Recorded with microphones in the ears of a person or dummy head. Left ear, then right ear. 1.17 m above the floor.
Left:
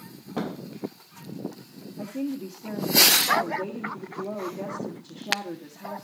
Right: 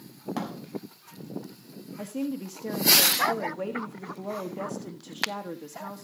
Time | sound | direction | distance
0.4 | a thud | 85° right | 5 m
2.0 | a woman speaking | 75° right (ahead or behind) | 1.5 m